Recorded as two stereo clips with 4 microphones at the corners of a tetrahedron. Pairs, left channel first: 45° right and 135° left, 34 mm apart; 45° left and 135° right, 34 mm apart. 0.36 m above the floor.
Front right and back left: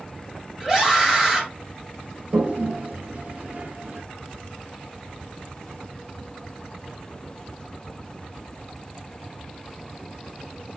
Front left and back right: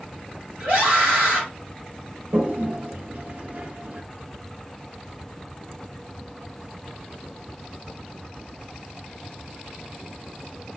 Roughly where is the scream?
Behind right.